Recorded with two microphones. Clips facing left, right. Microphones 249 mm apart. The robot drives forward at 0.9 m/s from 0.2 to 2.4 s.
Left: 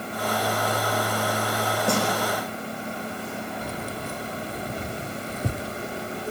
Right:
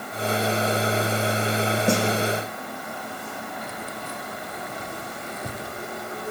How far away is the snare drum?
About 6 m.